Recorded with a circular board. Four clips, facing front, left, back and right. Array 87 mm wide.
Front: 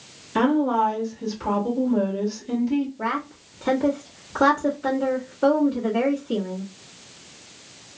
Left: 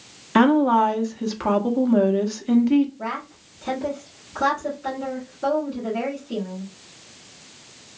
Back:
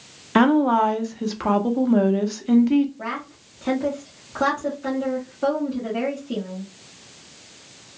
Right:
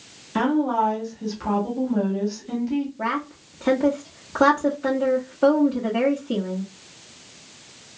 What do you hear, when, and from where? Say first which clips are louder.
0.3 s a woman speaking: left 5 dB, back 3 dB; 140° left, 0.8 m
3.0 s a woman speaking: right 4 dB, front 4 dB; 90° right, 1.2 m